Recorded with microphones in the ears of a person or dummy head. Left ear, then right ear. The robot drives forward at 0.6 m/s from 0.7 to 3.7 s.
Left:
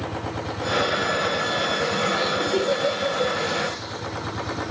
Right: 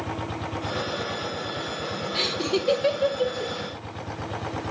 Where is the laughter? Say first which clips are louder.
Left 3 dB; 80° right, 4 m; by 3.5 s 65° right (ahead or behind), 4 m.